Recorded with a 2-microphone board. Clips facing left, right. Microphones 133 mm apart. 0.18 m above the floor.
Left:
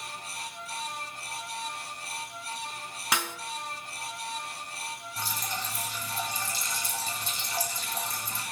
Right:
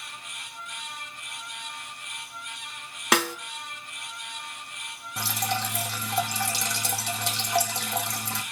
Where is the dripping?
75° right (ahead or behind), 2 m.